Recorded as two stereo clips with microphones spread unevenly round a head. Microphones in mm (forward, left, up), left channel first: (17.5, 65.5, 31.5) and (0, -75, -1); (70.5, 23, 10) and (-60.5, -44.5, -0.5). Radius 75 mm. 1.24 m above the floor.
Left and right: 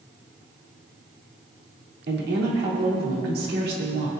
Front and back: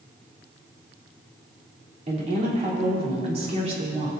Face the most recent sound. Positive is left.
turn(degrees=-105)